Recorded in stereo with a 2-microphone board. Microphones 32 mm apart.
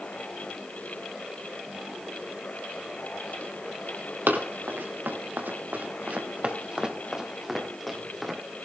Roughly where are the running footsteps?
Right.